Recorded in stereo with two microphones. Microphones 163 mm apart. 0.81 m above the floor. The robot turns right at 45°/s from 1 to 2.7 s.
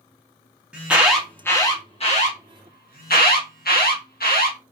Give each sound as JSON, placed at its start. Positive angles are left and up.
{"t": 0.7, "sound": "an alarm", "side_deg": -5, "distance_m": 0.7}